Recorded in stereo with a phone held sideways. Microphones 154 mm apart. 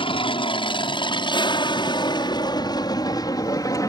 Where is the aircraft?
30° left (ahead or behind); by 3.9 s 20° left (ahead or behind).